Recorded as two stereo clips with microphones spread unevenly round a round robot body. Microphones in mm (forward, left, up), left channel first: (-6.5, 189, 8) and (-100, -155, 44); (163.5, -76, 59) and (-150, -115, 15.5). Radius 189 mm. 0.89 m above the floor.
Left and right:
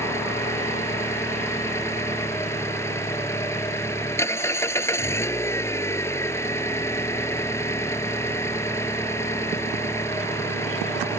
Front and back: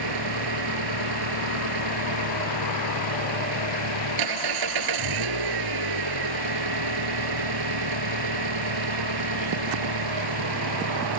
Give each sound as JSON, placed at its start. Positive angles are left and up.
{"t": 0.0, "sound": "an engine running", "azimuth_deg": 160}